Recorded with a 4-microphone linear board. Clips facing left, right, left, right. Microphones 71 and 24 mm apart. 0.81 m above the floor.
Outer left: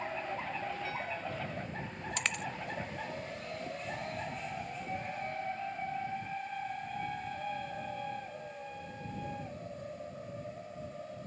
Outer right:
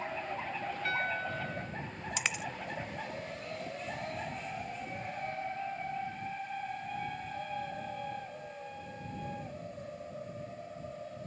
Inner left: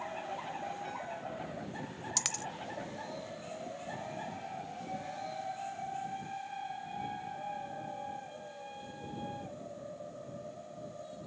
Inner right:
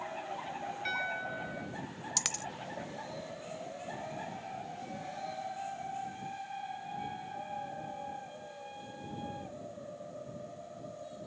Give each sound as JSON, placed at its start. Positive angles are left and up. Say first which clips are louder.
{"t": 0.8, "sound": "a piano", "louder": "outer right 4 dB, inner right 5 dB", "side_deg": -60}
{"t": 2.2, "sound": "a dropped coin", "louder": "even, inner right 1 dB", "side_deg": -5}